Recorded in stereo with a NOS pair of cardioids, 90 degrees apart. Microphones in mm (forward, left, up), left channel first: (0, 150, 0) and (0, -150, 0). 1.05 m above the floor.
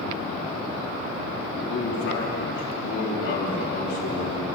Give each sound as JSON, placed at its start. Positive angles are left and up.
{"t": 1.6, "sound": "a man speaking", "azimuth_deg": 65, "distance_m": 5.5}